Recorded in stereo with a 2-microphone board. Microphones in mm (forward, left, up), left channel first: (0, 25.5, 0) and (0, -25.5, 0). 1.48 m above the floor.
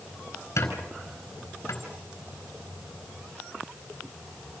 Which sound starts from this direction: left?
A squeak, at 0.6 s.